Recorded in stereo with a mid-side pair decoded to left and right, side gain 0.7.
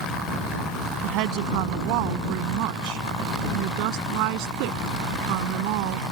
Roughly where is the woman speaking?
Ahead right.